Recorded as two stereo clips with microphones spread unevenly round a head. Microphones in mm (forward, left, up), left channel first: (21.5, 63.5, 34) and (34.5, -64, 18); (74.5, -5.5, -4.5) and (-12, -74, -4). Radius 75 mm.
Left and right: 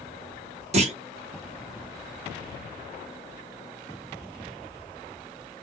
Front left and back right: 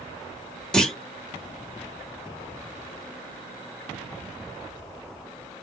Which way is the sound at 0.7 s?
45° right.